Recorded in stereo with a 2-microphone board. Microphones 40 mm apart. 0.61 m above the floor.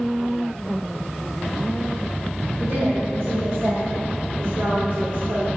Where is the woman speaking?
75° right (ahead or behind), 3.5 m; by 5.5 s 45° right (ahead or behind), 1.3 m.